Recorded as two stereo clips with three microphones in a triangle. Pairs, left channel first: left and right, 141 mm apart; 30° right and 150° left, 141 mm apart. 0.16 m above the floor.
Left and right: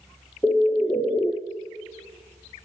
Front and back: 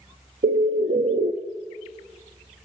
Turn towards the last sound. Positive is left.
turn(degrees=165)